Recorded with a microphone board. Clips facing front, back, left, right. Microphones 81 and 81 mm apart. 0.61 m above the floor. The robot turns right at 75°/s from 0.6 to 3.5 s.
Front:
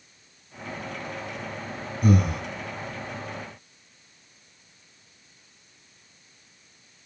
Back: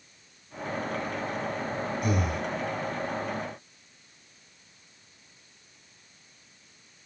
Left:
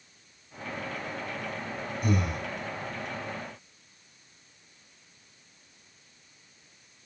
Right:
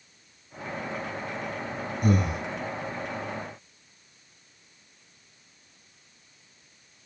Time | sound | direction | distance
2.0 | breathing | 45° right | 5.5 m